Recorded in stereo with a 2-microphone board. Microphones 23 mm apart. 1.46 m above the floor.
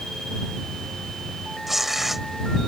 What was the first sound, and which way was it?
Tearing paper, 10° right (ahead or behind).